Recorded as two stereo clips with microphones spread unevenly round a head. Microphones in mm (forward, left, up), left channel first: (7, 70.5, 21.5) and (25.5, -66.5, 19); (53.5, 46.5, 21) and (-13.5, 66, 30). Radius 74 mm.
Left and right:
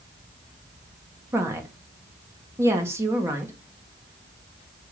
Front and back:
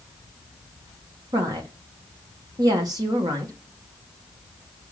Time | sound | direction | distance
1.3 | a woman speaking | 155° right | 1.4 m